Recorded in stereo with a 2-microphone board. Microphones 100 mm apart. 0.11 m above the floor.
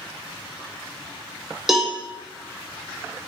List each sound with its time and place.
1.7 s a cowbell: 5° right (ahead or behind), 0.9 m